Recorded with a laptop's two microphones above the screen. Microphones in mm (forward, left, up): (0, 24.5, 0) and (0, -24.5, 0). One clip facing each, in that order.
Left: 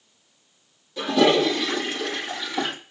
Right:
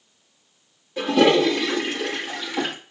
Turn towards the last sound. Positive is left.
turn(degrees=-30)  # may be behind; listen again after turning